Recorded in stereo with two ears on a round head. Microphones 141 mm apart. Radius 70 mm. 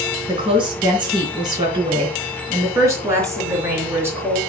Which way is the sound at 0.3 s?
40° right (ahead or behind).